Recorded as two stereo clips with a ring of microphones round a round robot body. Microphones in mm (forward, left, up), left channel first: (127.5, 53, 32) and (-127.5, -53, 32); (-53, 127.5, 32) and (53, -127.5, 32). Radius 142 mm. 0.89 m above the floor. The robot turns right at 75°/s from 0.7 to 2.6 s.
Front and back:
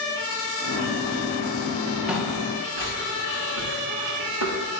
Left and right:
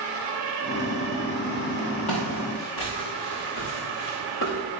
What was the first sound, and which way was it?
Footsteps, 115° left.